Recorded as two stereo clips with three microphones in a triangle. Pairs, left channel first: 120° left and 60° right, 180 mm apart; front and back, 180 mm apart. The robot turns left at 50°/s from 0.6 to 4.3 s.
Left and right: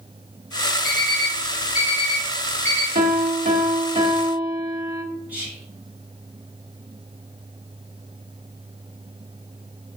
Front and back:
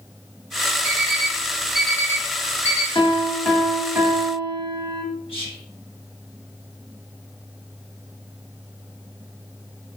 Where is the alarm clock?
135° left, 1.0 m; by 2.9 s 35° left, 1.0 m.